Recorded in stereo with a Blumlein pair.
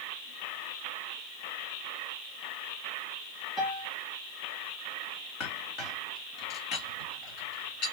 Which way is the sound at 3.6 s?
10° left.